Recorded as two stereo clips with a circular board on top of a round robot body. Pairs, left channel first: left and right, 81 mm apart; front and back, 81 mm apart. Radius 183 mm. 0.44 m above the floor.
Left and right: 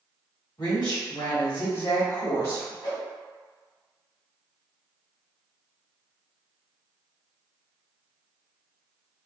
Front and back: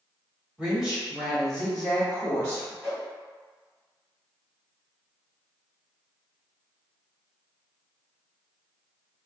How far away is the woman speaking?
About 1.7 m.